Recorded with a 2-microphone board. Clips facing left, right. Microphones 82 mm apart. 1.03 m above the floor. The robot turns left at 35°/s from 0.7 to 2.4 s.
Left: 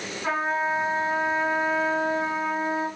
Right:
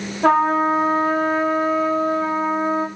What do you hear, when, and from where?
0.2 s a trumpet: 80° right, 5.5 m; by 2.9 s 140° right, 5.5 m